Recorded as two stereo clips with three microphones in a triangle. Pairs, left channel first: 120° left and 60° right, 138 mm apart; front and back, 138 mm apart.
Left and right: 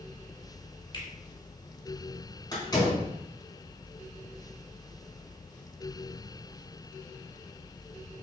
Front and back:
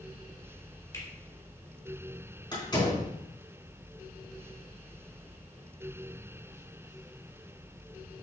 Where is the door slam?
60° left, 4.5 m.